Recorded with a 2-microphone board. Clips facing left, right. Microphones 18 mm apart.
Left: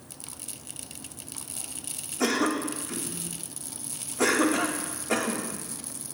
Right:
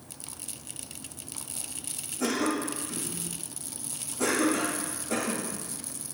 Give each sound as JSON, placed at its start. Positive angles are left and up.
{"t": 2.2, "sound": "a cough", "side_deg": 45, "distance_m": 1.9}